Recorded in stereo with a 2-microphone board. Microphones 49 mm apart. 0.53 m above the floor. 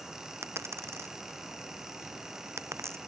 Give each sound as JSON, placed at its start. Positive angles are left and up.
{"t": 0.4, "sound": "a dropped coin", "side_deg": -60}